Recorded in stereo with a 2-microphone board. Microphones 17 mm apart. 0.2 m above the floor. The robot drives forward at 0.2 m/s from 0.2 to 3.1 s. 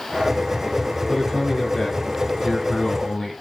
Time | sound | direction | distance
1.1 | a man speaking | 25° left (ahead or behind) | 1.2 m